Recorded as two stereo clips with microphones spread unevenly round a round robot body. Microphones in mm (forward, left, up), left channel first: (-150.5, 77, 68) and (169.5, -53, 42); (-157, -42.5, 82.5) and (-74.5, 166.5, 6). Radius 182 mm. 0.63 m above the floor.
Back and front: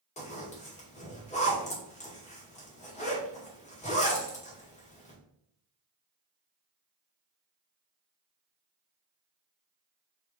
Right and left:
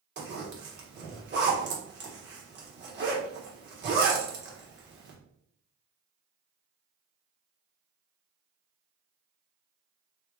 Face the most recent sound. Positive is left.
turn(degrees=85)